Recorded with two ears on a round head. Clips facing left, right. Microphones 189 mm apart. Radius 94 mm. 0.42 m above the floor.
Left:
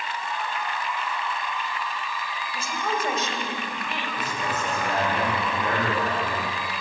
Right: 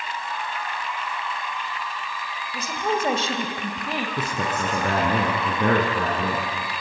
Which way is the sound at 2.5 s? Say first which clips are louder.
Right 4 dB; 15° right (ahead or behind).